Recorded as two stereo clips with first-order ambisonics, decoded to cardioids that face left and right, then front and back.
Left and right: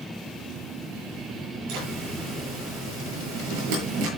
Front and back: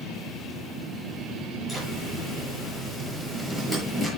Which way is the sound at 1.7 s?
80° right.